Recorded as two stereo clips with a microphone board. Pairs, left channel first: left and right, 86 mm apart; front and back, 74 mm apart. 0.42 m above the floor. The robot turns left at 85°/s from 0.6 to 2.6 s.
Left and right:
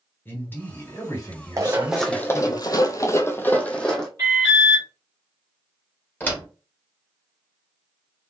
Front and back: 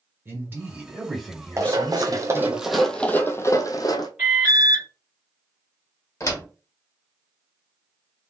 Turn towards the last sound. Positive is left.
turn(degrees=30)